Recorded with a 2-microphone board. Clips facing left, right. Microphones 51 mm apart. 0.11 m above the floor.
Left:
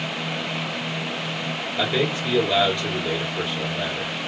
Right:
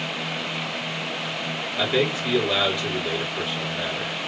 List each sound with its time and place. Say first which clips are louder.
1.8 s a man speaking: right 1 dB; 5° right (ahead or behind), 1.7 m